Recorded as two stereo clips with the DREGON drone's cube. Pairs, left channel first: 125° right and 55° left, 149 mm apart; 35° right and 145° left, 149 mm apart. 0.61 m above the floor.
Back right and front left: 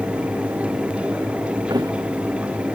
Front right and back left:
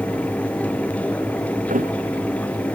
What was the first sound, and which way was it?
A thud, 120° left.